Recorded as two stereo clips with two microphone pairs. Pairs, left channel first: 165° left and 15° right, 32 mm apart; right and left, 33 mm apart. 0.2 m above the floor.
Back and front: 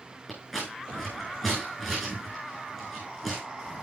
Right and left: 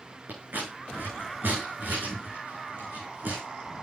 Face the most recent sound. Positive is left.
turn(degrees=85)